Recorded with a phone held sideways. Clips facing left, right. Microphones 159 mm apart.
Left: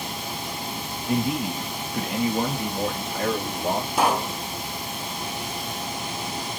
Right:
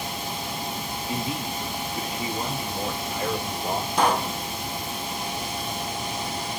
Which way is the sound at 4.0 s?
5° left (ahead or behind).